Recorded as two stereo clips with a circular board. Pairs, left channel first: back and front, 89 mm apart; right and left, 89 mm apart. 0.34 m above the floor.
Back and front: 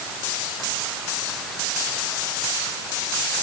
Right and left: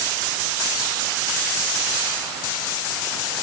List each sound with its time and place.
Only background noise.